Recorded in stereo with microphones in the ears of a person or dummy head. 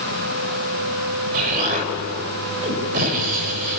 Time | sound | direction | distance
1.3 | an explosion | 45° right (ahead or behind) | 3 m